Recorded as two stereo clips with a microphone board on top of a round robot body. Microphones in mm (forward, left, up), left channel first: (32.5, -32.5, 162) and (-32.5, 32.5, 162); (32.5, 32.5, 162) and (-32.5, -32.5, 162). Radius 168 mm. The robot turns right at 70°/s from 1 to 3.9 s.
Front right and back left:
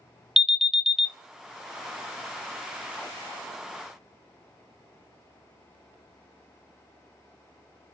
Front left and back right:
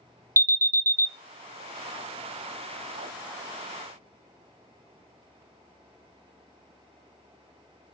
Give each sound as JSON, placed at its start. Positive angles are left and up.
{"t": 0.4, "sound": "an alarm", "azimuth_deg": -140, "distance_m": 0.7}